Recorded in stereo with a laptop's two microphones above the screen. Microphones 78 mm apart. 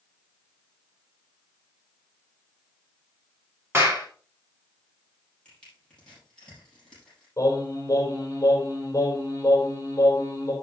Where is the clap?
35° right (ahead or behind), 2.5 m.